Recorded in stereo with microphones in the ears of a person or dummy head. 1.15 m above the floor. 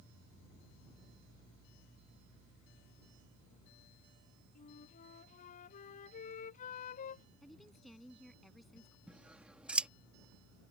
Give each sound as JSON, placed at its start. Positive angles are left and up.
{"t": 4.5, "sound": "a flute", "side_deg": 45}
{"t": 7.4, "sound": "a woman speaking", "side_deg": 0}
{"t": 9.1, "sound": "scissors", "side_deg": -5}